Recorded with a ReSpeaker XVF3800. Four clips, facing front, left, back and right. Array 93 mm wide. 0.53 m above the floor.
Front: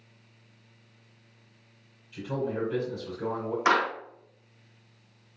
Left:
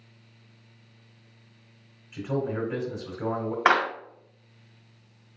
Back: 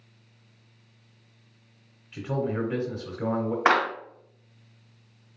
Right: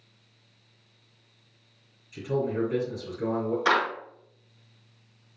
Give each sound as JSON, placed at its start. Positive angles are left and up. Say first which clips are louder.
{"t": 2.1, "sound": "a man speaking", "louder": "right 1 dB, back 2 dB", "azimuth_deg": 145, "distance_m": 3.0}
{"t": 3.6, "sound": "a clap", "louder": "left 3 dB, back 2 dB", "azimuth_deg": 125, "distance_m": 2.5}